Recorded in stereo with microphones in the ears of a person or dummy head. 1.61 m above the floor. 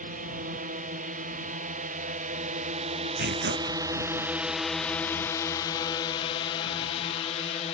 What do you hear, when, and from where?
0.0 s a drone: 40° right (ahead or behind); by 7.7 s 30° left (ahead or behind)
3.2 s tearing paper: 50° right (ahead or behind)